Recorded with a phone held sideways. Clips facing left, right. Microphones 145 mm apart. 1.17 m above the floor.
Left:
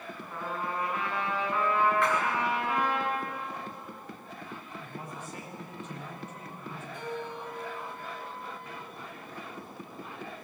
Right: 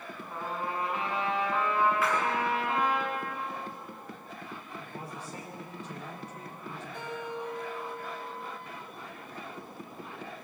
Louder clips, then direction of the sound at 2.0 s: Left 1 dB; 5° right (ahead or behind).